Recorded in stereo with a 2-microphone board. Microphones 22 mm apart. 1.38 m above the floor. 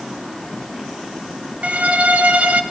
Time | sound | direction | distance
1.6 | a violin | 70° right (ahead or behind) | 1.3 m